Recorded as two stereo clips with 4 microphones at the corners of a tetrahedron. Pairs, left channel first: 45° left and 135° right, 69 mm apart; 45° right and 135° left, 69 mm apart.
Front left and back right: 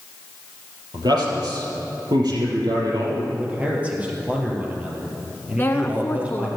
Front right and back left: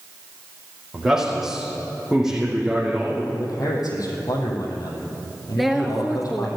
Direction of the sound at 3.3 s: 65° right.